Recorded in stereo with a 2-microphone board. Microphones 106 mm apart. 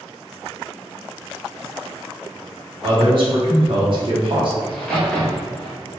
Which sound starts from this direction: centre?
A crack, at 4.6 s.